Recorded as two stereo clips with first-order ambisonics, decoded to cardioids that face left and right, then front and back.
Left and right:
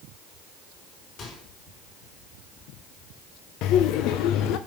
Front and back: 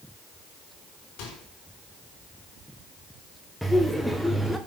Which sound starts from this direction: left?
Laughter, at 3.6 s.